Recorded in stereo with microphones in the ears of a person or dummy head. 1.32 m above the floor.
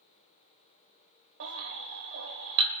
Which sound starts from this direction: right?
A baby crying, at 1.4 s.